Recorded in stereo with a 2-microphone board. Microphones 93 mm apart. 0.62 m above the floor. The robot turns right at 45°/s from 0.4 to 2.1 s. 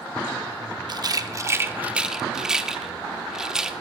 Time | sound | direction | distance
0.9 | a rattle | 50° right (ahead or behind) | 0.5 m